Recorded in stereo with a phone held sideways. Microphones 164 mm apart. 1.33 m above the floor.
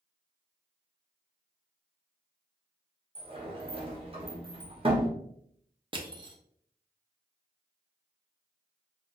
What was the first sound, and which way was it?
A sliding door, 35° right (ahead or behind).